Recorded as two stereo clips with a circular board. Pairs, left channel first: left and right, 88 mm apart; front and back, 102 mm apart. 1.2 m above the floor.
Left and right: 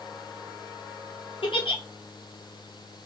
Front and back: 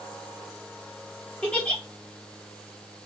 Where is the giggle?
80° left, 1.5 m.